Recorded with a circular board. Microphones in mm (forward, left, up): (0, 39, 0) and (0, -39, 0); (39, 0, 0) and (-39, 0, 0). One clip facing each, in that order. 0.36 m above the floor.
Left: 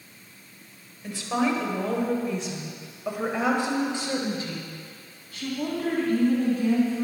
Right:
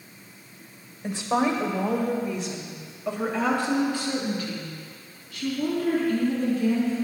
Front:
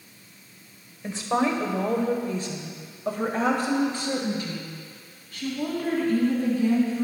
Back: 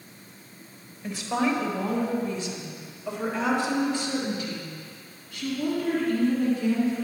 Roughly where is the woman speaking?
Ahead right.